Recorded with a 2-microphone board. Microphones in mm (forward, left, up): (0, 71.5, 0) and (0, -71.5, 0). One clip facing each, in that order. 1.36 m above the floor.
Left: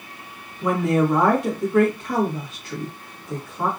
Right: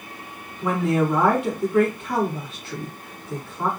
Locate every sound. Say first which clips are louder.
0.6 s a woman speaking: left 2 dB; 40° left (ahead or behind), 1.4 m